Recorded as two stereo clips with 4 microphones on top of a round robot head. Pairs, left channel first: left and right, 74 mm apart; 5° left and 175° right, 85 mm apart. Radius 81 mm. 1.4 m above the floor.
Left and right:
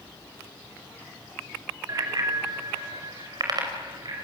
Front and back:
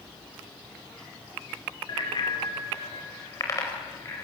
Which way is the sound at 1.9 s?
45° right.